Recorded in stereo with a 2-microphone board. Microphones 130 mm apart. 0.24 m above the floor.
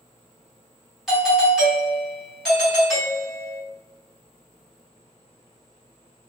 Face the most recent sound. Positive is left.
turn(degrees=0)  # may be behind; listen again after turning